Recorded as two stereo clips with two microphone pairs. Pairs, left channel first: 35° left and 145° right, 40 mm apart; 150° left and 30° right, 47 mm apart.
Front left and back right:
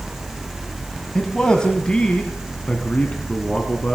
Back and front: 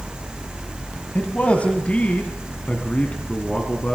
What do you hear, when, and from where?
1.1 s a man speaking: 105° left, 2.0 m; by 4.0 s 90° left, 3 m